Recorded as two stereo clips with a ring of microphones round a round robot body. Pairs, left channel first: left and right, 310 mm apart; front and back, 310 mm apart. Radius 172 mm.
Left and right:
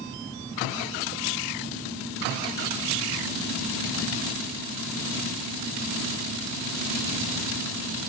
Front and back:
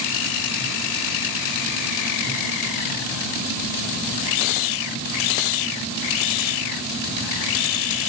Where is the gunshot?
I don't hear a gunshot.